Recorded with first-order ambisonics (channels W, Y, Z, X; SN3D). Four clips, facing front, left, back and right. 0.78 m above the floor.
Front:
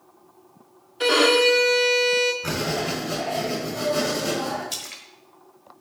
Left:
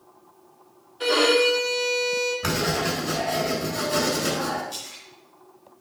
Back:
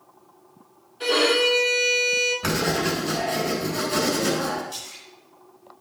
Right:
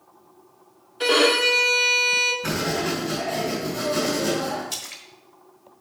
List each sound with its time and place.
1.0 s a violin: 35° right, 1.2 m
2.4 s writing: 135° left, 3.5 m
4.7 s a splash: 40° right, 1.2 m